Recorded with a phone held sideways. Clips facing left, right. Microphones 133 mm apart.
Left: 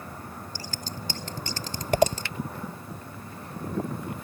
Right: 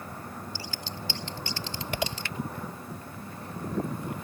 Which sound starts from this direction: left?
Scissors, at 0.6 s.